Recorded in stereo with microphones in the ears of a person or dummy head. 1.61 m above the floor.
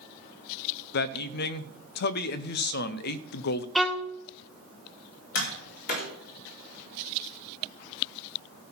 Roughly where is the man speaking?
Left.